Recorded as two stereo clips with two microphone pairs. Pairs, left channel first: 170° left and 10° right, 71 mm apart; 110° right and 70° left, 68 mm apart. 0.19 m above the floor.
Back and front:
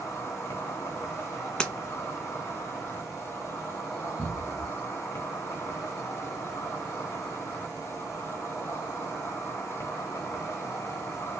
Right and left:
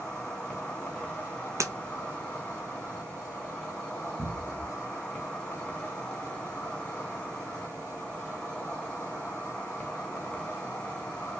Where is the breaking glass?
95° left, 0.5 m.